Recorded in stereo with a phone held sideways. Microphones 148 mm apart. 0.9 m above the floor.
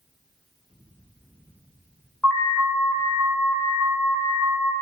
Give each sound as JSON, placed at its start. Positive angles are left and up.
{"t": 2.2, "sound": "an alarm", "side_deg": 5, "distance_m": 1.8}